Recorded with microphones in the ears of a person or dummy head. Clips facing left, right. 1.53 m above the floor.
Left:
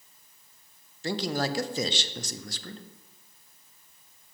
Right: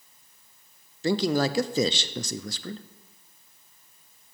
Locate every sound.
1.0 s a man speaking: 60° right (ahead or behind), 0.5 m